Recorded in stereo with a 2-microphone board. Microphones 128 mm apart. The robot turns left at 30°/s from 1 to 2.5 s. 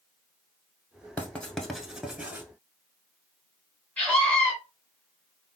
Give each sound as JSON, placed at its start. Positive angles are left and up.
{"t": 1.2, "sound": "writing", "side_deg": 15, "distance_m": 0.6}
{"t": 4.0, "sound": "a scream", "side_deg": 15, "distance_m": 1.8}